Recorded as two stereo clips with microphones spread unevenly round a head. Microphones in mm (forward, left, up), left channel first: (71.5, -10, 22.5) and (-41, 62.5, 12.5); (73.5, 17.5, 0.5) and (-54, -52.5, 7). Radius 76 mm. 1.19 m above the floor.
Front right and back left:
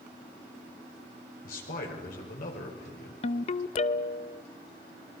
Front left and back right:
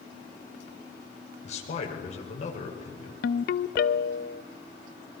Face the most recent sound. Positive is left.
turn(degrees=5)